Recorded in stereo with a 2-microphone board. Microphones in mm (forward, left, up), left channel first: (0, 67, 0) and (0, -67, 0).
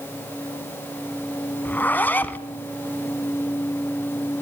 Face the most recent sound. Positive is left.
turn(degrees=15)  # may be behind; listen again after turning